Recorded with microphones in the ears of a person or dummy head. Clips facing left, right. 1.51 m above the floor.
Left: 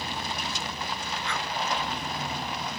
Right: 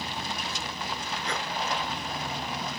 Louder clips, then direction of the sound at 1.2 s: Right 1 dB; 35° right (ahead or behind).